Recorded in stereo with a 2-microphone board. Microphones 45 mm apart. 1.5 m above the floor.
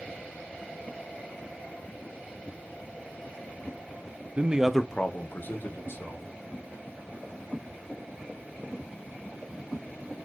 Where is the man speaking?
35° right (ahead or behind), 0.6 m; by 6.3 s 65° left (ahead or behind), 1.7 m.